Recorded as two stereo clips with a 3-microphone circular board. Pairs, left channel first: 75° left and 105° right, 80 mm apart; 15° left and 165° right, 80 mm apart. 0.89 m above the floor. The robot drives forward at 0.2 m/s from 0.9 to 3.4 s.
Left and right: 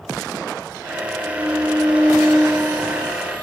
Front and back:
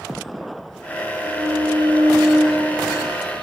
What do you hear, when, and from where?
1.2 s a violin: 145° right, 7.5 m; by 3.5 s 150° right, 7.5 m